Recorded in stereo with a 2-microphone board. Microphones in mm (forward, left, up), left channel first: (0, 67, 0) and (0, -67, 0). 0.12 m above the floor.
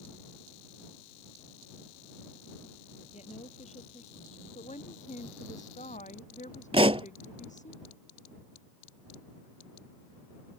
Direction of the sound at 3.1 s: 60° left (ahead or behind).